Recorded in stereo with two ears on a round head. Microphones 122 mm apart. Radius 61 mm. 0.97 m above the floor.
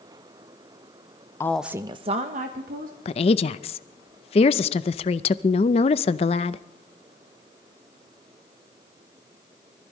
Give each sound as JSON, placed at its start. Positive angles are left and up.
{"t": 1.4, "sound": "a woman speaking", "side_deg": 20, "distance_m": 0.6}
{"t": 3.0, "sound": "a woman speaking", "side_deg": 45, "distance_m": 0.6}